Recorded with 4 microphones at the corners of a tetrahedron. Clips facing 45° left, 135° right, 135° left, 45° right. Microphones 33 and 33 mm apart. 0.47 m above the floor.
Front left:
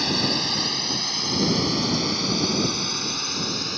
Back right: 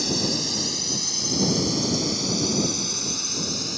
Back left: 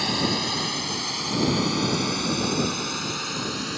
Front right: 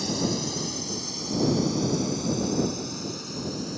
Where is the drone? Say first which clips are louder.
Front left 2 dB, back left 3 dB; 100° left; by 3.8 s 110° left.